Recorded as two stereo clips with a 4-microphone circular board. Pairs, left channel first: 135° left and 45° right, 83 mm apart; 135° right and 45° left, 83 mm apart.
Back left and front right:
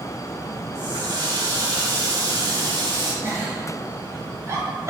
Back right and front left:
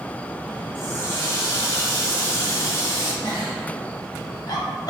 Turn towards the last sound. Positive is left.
turn(degrees=-100)